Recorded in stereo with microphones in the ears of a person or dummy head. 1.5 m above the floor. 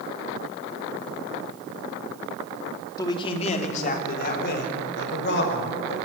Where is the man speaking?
10° left (ahead or behind), 2.5 m; by 6.0 s 60° left (ahead or behind), 6 m.